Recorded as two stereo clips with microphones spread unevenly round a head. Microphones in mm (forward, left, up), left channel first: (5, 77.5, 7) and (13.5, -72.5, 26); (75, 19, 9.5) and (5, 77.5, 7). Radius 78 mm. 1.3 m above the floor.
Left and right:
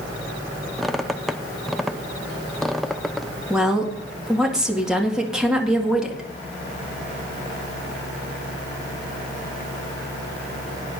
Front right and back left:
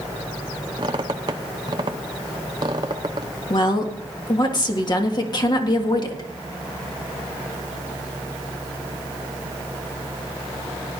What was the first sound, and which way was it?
A squeak, 170° right.